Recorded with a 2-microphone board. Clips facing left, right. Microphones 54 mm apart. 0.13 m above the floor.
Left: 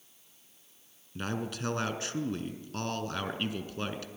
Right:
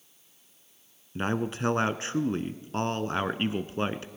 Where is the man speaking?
30° right (ahead or behind), 1.2 m.